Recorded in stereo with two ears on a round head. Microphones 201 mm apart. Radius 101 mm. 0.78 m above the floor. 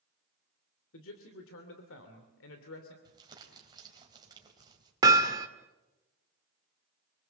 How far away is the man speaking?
About 2.5 m.